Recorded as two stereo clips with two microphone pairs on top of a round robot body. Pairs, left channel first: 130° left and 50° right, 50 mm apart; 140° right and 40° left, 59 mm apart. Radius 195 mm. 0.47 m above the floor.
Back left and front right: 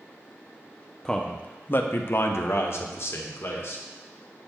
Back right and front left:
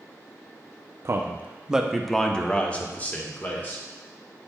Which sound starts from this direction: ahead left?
A man speaking, at 1.1 s.